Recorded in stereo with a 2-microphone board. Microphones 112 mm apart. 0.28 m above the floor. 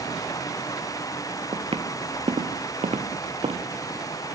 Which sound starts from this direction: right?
Footsteps, at 1.5 s.